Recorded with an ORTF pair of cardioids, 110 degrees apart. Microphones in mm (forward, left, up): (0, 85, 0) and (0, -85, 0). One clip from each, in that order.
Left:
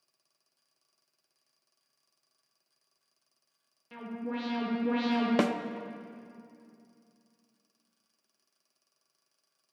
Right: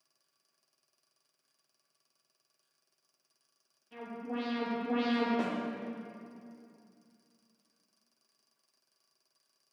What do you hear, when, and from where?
3.9 s an alarm: 65° left, 3 m
5.4 s a snare drum: 70° left, 0.5 m